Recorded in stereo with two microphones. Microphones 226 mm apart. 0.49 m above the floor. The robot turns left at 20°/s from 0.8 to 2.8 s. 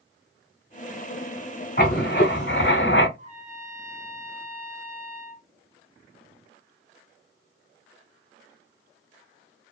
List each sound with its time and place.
1.8 s writing: 45° left (ahead or behind), 0.9 m; by 3.1 s 55° left (ahead or behind), 0.9 m
3.2 s a trumpet: 30° right (ahead or behind), 1.0 m